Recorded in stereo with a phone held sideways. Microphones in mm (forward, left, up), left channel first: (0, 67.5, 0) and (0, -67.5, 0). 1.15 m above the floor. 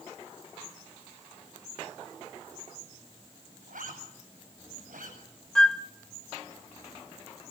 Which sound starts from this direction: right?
A zipper, at 3.7 s.